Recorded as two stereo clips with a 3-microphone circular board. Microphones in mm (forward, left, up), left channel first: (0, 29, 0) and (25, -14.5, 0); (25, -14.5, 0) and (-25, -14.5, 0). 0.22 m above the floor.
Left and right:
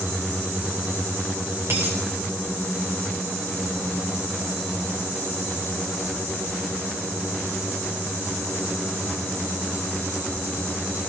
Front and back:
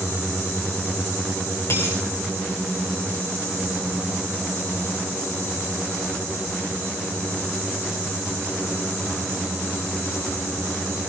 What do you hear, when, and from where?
1.7 s a dropped coin: 25° right, 5 m